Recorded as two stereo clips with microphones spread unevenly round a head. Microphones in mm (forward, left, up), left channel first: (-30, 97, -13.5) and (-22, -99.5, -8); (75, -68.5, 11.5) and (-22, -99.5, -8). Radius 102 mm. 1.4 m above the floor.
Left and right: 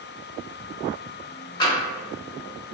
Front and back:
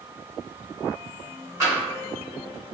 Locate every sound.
1.6 s tapping: 135° left, 1.2 m